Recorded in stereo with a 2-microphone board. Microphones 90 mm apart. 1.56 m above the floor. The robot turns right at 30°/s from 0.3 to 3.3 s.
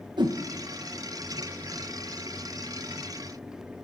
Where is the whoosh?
55° right (ahead or behind), 1.6 m; by 0.4 s 60° right (ahead or behind), 1.6 m.